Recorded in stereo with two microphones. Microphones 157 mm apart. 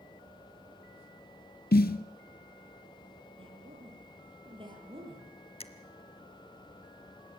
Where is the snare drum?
75° left (ahead or behind), 0.8 m.